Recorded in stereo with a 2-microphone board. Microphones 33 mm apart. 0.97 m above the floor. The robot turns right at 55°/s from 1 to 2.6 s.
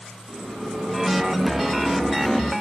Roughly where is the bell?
Ahead right.